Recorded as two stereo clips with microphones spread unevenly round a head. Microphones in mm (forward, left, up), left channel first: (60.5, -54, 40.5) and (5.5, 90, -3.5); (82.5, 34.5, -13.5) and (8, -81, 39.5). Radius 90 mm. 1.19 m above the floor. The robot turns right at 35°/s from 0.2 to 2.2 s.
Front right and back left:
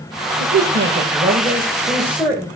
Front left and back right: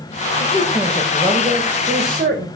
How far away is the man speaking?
About 1.6 m.